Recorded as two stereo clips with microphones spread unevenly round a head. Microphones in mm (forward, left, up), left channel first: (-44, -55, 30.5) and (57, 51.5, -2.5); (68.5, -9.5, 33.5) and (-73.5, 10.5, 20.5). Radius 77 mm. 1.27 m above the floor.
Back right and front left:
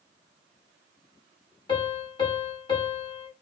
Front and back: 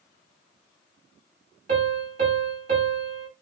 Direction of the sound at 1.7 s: 155° right.